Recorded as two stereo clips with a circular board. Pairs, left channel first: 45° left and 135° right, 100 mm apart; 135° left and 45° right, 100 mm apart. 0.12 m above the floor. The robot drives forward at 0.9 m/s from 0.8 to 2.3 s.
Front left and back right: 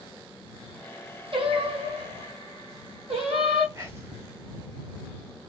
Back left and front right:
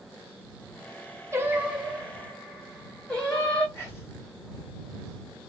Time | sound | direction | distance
1.3 | singing | 105° right | 0.8 m
3.8 | whispering | straight behind | 1.4 m